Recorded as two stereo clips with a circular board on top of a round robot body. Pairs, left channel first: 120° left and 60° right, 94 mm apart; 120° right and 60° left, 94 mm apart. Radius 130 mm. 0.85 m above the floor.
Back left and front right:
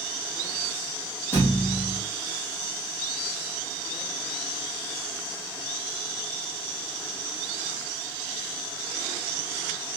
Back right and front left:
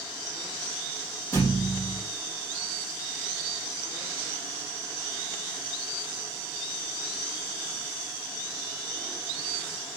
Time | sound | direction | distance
1.3 | a thud | 175° right | 3.5 m